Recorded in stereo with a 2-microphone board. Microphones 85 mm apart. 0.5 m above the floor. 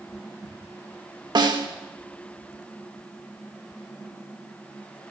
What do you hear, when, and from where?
1.4 s a snare drum: 55° right (ahead or behind), 0.6 m